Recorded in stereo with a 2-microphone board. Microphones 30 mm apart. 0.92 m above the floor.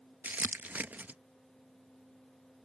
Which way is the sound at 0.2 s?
75° right (ahead or behind).